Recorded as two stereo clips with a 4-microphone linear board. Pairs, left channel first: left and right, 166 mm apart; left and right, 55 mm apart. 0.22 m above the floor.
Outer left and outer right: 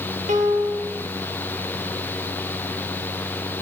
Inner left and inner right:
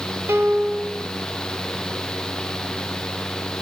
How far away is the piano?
About 1.0 m.